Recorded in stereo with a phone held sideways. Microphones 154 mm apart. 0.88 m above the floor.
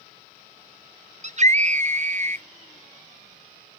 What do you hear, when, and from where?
1.2 s a scream: 50° right (ahead or behind), 0.6 m